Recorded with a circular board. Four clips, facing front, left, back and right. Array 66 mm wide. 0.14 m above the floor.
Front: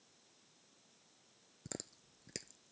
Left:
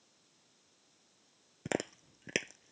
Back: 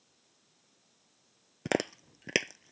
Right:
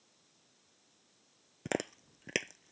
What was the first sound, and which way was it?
Chewing, straight behind.